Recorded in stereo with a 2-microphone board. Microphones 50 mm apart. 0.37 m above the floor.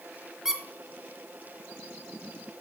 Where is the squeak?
10° right (ahead or behind), 1.1 m.